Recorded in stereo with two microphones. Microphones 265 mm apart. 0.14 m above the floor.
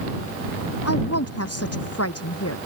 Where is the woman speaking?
65° left (ahead or behind).